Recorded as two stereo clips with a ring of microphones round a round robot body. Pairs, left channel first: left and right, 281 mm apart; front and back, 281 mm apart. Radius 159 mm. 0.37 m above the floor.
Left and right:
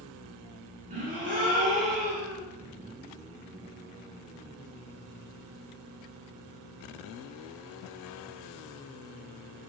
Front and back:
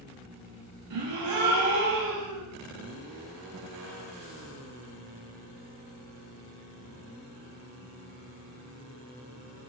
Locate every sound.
0.9 s a gasp: 155° right, 0.5 m